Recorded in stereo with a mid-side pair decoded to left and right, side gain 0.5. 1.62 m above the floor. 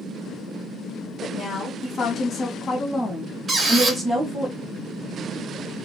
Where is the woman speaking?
60° left, 1.4 m; by 4.5 s 30° right, 1.0 m.